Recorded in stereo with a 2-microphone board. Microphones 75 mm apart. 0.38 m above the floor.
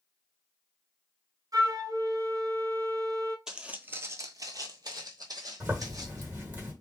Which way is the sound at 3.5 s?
10° right (ahead or behind).